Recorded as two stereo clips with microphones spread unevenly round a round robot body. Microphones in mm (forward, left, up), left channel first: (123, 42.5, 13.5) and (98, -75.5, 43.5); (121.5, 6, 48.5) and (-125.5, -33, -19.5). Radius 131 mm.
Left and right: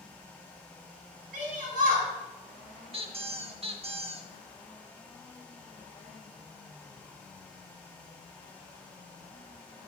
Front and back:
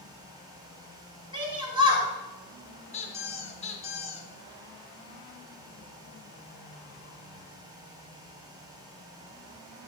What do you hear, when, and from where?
1.3 s a shout: 105° right, 3.5 m
2.9 s a squeak: 60° right, 1.1 m